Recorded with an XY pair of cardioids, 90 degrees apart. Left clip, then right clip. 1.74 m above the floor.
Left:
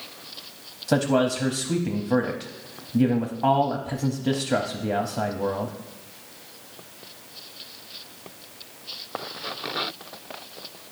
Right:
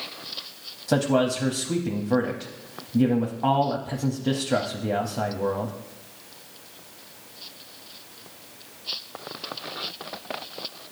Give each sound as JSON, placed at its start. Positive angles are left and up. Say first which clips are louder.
{"t": 0.9, "sound": "a man speaking", "louder": "even", "azimuth_deg": 0, "distance_m": 0.8}